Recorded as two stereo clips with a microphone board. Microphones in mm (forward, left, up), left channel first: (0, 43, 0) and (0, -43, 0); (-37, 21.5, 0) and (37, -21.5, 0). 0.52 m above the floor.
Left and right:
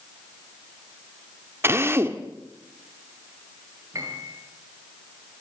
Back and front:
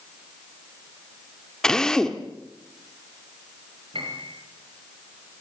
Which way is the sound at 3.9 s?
40° right.